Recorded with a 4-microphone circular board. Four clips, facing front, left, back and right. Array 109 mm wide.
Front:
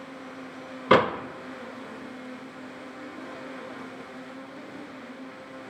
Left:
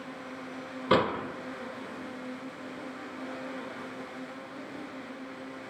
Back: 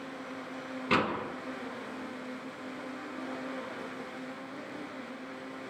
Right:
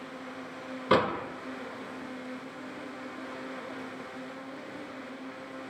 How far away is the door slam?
About 2 m.